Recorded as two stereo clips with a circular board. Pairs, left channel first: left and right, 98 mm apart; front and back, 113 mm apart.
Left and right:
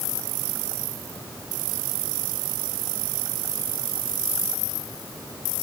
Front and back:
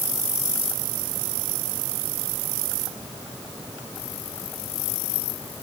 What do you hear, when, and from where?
Only background noise.